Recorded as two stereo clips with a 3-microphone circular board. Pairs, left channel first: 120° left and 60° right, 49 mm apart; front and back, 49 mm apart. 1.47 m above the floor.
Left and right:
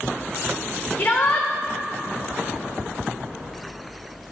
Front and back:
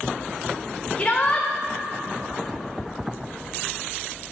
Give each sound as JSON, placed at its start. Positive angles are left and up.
{"t": 1.0, "sound": "a shout", "azimuth_deg": 65, "distance_m": 0.7}